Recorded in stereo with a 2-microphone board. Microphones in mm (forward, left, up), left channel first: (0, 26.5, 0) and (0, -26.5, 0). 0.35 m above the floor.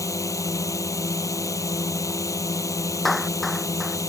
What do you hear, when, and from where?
0.0 s a drone: 80° left
3.0 s a clap: centre (ahead or behind)